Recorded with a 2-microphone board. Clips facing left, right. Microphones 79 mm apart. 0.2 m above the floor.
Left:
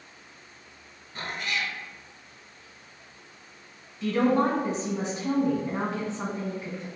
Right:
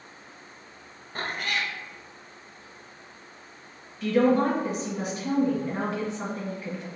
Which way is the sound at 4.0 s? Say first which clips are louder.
Right 2 dB; 30° left (ahead or behind).